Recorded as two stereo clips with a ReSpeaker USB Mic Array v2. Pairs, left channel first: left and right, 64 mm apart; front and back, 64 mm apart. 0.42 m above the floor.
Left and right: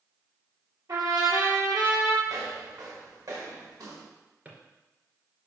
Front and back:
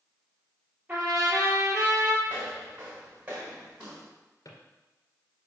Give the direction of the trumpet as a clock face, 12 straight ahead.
4 o'clock.